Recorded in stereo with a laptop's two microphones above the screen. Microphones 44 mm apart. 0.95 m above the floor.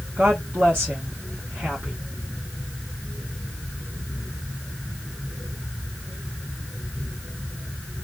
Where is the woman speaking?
50° right (ahead or behind), 1.5 m.